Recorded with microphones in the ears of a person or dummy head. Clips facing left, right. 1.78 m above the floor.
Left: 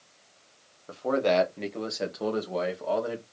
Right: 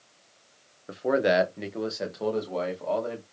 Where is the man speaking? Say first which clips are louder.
Right 1 dB; 20° right (ahead or behind), 0.9 m; by 3.2 s 10° left (ahead or behind), 1.9 m.